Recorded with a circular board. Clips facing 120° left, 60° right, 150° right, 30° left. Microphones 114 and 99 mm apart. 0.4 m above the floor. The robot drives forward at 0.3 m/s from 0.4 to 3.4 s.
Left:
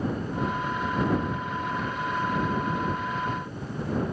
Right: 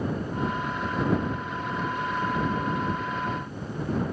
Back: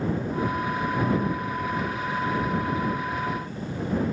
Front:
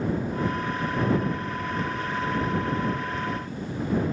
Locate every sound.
Only background noise.